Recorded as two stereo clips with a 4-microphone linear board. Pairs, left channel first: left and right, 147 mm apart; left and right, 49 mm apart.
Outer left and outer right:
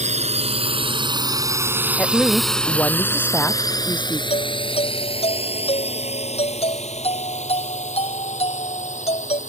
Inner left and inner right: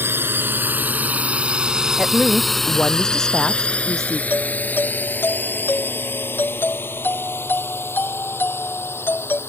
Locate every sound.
0.0 s a drone: 55° right (ahead or behind); by 9.5 s 55° left (ahead or behind)
2.0 s a woman speaking: 10° left (ahead or behind)
4.3 s a doorbell: 45° left (ahead or behind)